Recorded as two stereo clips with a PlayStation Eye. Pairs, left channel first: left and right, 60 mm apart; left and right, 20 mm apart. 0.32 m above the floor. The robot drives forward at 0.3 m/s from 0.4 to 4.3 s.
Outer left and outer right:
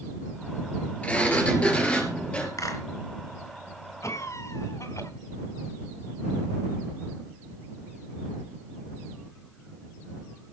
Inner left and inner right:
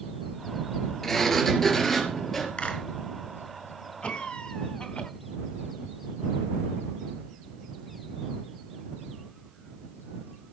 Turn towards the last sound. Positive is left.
turn(degrees=60)  # may be behind; listen again after turning